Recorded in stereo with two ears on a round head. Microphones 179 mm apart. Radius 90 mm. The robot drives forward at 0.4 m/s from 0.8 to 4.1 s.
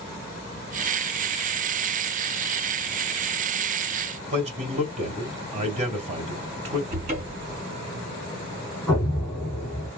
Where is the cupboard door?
40° right (ahead or behind), 2.5 m.